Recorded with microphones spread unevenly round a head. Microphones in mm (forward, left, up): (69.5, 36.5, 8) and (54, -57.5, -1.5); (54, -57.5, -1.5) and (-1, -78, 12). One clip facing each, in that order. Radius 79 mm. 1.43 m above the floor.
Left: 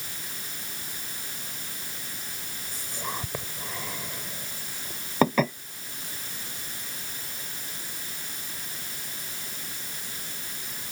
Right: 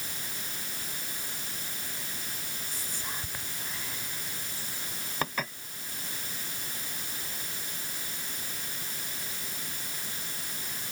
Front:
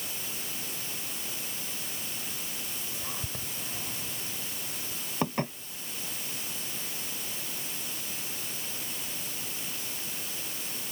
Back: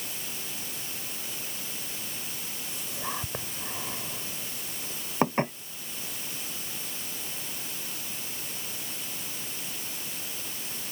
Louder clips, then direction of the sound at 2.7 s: Left 8 dB, back 4 dB; 130° left.